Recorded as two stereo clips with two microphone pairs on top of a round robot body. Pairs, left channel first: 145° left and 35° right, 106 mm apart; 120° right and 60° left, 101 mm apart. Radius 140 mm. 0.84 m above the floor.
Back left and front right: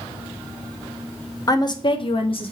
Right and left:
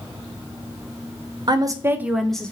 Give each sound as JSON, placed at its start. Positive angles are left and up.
{"t": 1.5, "sound": "a woman speaking", "azimuth_deg": 90, "distance_m": 0.7}